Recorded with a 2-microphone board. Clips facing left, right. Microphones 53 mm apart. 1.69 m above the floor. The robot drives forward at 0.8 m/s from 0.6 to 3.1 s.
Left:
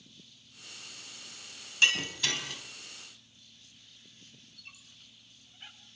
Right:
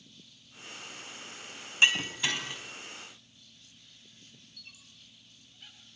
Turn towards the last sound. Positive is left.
turn(degrees=25)  # may be behind; listen again after turning